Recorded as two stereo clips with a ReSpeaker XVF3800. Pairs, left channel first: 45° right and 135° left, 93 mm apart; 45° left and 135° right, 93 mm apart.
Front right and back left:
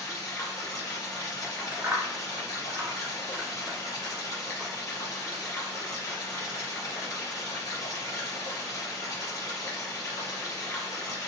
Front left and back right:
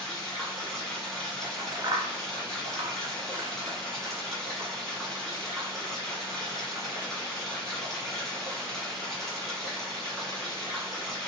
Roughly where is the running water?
Ahead right.